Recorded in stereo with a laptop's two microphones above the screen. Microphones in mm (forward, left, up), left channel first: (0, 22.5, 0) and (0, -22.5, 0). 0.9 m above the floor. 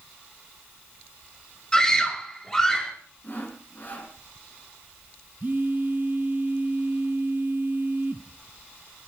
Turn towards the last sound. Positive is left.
turn(degrees=-40)  # may be behind; listen again after turning